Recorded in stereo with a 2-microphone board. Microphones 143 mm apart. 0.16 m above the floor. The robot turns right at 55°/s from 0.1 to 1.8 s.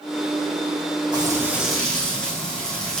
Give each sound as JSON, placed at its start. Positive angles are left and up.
{"t": 1.1, "sound": "frying", "azimuth_deg": -35, "distance_m": 10.0}